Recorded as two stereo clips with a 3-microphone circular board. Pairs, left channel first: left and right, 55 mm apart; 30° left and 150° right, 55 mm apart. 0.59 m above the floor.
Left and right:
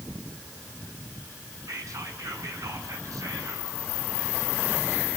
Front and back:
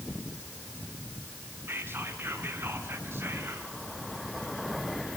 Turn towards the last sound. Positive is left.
turn(degrees=-100)